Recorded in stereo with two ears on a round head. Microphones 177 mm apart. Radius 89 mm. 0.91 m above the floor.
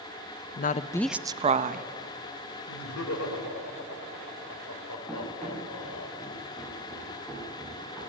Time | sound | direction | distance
0.6 | a woman speaking | 50° left (ahead or behind) | 0.7 m
2.7 | laughter | 80° left | 3 m
5.1 | running footsteps | 10° left (ahead or behind) | 7.5 m